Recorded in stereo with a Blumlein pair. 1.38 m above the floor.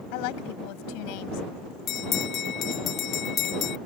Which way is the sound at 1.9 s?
30° left.